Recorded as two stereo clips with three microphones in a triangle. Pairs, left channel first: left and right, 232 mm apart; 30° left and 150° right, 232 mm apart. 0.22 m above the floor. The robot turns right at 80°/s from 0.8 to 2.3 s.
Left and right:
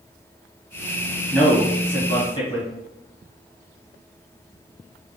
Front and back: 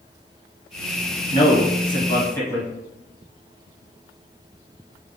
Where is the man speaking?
15° left, 1.2 m; by 2.7 s 90° left, 1.2 m.